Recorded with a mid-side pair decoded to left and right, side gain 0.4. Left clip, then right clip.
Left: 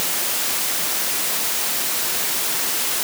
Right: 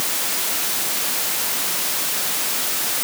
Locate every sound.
Only background noise.